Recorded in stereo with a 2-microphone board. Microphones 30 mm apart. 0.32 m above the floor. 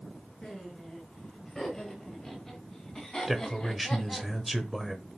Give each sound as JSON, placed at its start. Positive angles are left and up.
{"t": 0.4, "sound": "laughter", "side_deg": 15, "distance_m": 5.0}
{"t": 3.3, "sound": "a man speaking", "side_deg": 0, "distance_m": 1.0}